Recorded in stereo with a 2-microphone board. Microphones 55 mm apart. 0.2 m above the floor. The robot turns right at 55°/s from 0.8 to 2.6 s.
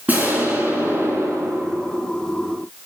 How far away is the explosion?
About 2.5 m.